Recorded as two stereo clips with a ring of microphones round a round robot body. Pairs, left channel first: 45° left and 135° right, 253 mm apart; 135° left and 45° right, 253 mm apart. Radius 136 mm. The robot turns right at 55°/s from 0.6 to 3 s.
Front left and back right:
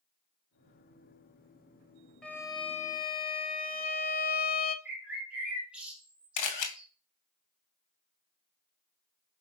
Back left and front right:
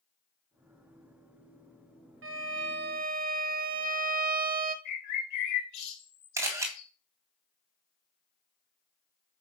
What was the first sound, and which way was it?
A violin, 40° right.